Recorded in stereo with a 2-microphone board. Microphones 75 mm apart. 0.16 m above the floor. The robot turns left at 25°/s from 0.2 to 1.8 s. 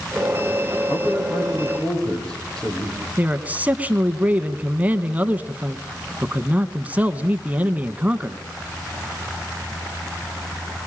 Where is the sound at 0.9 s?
35° left (ahead or behind), 6 m; by 3.1 s 10° left (ahead or behind), 6 m.